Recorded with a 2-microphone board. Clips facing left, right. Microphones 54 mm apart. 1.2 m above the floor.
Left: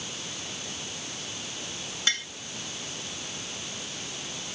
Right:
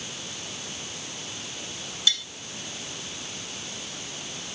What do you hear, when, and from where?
2.1 s tapping: 40° left (ahead or behind)